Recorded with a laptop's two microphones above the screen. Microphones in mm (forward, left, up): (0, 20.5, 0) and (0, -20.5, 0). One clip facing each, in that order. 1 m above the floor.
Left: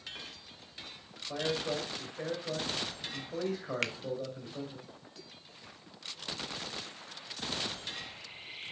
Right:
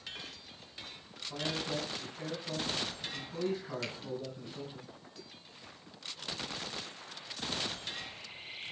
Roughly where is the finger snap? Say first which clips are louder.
Left 6 dB; left.